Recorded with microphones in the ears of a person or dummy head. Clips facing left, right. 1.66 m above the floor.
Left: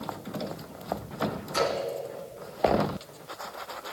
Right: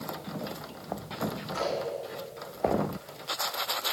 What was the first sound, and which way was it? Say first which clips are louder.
A splash: left 4 dB; 60° left (ahead or behind).